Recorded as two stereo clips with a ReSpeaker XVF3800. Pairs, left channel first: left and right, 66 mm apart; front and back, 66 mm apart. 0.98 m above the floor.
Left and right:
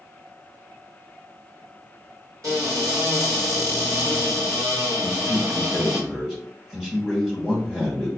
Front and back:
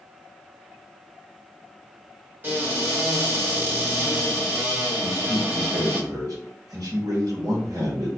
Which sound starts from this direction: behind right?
A cupboard door, at 2.4 s.